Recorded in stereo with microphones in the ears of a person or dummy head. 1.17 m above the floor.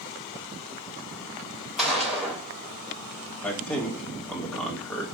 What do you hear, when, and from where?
1.8 s a gunshot: centre (ahead or behind), 1.3 m
3.4 s a man speaking: 5° left (ahead or behind), 1.3 m